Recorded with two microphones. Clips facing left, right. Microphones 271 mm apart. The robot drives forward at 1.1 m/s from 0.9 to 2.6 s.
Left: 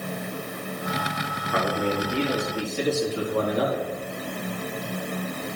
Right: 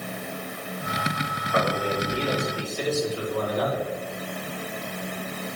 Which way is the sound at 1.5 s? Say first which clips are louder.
Even; 85° left.